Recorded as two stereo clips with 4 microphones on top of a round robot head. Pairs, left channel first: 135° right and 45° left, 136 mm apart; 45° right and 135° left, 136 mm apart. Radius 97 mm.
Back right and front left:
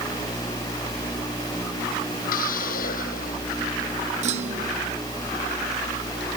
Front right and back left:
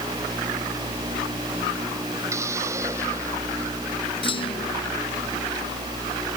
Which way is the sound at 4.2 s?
5° left.